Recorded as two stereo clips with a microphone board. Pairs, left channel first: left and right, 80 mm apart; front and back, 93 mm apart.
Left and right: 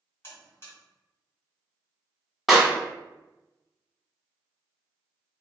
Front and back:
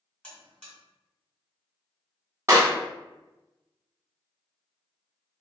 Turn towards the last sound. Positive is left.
turn(degrees=-175)